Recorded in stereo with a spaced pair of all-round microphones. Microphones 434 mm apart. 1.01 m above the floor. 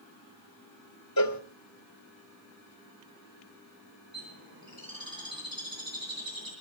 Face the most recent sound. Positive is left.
turn(degrees=-50)  # may be behind; listen again after turning